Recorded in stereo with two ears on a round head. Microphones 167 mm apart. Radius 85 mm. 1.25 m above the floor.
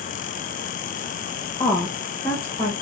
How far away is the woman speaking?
About 0.7 m.